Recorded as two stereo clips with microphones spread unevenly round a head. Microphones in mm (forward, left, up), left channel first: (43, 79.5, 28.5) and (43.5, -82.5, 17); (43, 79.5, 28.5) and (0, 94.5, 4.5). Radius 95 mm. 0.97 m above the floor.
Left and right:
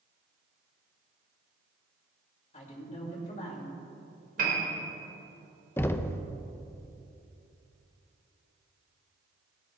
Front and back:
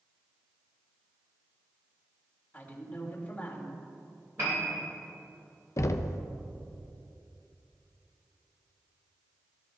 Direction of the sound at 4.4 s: 135° right.